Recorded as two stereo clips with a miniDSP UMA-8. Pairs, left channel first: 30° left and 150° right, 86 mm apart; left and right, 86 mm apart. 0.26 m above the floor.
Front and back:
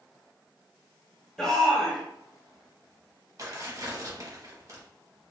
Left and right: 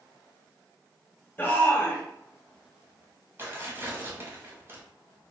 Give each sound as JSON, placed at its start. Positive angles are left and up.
{"t": 1.4, "sound": "a shout", "azimuth_deg": 110, "distance_m": 0.9}
{"t": 3.4, "sound": "tearing paper", "azimuth_deg": -135, "distance_m": 0.9}